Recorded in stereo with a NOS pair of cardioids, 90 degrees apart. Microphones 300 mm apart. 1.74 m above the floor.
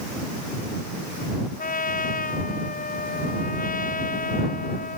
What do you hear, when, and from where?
1.6 s a trumpet: 30° left